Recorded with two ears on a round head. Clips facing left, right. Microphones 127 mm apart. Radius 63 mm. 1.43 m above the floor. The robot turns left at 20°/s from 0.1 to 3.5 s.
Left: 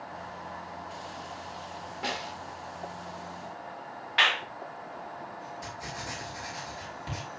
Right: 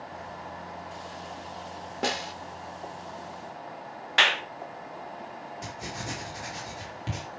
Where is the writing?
25° right (ahead or behind), 5 m.